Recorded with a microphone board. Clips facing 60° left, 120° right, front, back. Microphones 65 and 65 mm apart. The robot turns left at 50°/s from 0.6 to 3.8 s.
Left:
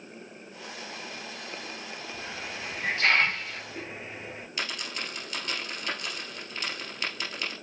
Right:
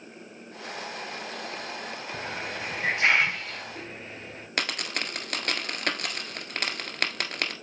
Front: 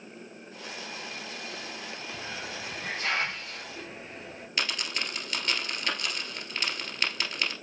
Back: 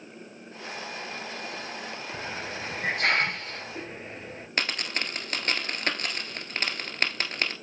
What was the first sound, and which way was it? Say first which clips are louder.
A hiss: right 5 dB, back 4 dB; 145° right.